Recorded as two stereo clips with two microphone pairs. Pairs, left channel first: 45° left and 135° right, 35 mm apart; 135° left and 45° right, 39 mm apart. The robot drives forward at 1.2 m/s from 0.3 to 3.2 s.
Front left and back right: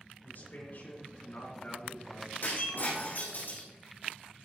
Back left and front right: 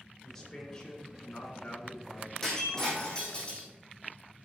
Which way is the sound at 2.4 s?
60° left.